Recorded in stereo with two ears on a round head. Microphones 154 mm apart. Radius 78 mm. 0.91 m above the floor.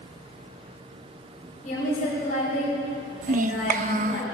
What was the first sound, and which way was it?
A woman speaking, 50° left (ahead or behind).